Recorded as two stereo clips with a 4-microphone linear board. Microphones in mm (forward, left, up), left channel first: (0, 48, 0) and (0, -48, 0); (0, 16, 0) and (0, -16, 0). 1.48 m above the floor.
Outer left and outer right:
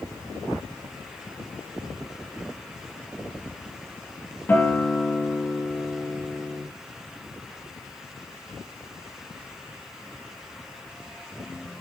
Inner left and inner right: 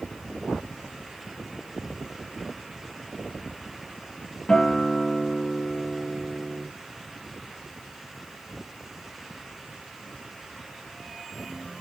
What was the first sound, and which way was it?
A guitar, 20° left (ahead or behind).